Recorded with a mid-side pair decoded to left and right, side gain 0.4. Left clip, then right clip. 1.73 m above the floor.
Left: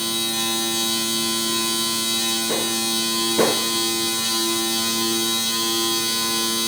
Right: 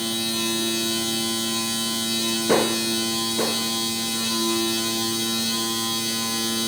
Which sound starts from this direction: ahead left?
A machine running, at 0.0 s.